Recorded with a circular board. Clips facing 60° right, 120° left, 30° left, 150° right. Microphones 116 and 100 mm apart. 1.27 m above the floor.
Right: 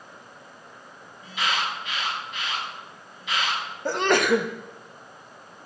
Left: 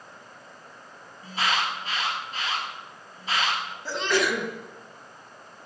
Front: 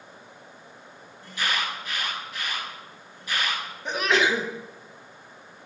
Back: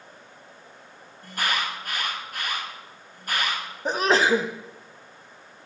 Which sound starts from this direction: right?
A sneeze, at 3.9 s.